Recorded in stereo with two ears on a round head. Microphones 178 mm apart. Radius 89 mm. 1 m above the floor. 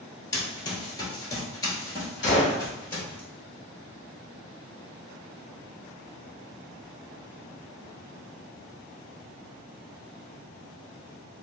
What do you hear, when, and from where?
0.3 s running footsteps: 20° left (ahead or behind), 1.1 m; by 3.2 s 10° left (ahead or behind), 1.5 m
2.2 s a gunshot: 45° left (ahead or behind), 1.4 m